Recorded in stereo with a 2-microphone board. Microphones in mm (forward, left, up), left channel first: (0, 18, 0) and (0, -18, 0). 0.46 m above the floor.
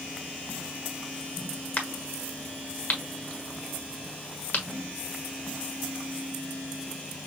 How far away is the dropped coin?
I don't hear a dropped coin.